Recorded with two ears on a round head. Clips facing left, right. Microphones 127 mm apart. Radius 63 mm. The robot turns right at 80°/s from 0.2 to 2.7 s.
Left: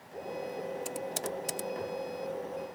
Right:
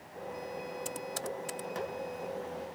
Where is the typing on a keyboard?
5° left (ahead or behind); by 1.9 s 60° left (ahead or behind).